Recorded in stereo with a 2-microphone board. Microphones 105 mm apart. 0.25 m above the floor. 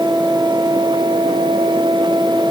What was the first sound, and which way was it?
Only background noise.